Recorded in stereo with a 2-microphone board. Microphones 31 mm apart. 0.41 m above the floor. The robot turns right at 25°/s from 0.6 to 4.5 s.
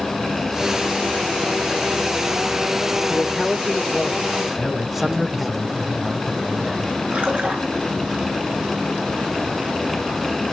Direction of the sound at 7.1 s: 45° right (ahead or behind).